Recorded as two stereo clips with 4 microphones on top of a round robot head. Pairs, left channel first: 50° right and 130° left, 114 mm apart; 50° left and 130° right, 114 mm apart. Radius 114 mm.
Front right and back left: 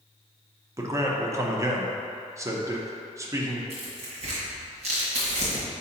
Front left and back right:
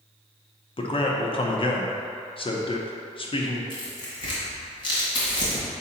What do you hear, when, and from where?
0.8 s a man speaking: 75° left, 1.0 m
3.7 s tearing paper: 100° left, 1.9 m